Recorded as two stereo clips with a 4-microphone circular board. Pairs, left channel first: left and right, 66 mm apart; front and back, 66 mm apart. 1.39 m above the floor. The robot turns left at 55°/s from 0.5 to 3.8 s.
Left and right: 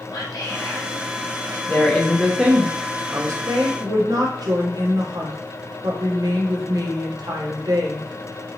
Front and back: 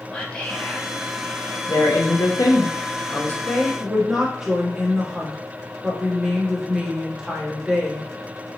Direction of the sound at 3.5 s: 80° right.